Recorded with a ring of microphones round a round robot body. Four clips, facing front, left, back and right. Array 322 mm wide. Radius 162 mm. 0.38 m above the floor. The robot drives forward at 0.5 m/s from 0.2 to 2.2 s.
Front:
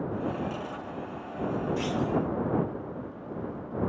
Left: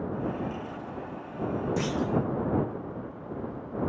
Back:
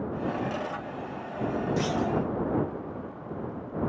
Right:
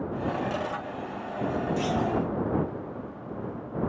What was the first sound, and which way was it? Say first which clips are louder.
A clunk: right 2 dB, back 2 dB; 145° left.